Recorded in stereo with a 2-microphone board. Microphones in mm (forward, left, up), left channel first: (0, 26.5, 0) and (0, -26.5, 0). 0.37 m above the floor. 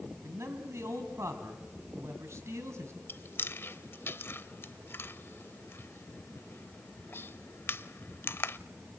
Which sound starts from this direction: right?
A man speaking, at 0.2 s.